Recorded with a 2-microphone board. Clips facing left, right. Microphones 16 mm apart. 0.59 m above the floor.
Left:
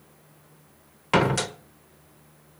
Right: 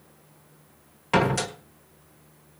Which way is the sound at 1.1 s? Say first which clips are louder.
Left 1 dB; 15° left (ahead or behind).